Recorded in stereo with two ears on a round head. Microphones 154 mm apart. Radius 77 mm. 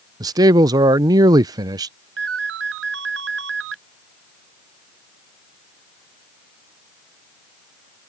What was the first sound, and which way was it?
A man speaking, 20° right (ahead or behind).